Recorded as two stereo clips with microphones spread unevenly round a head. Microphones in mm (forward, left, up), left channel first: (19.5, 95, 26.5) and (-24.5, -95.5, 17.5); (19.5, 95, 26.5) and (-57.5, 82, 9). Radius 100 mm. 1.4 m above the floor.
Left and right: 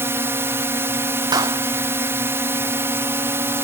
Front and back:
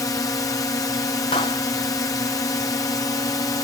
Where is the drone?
35° right.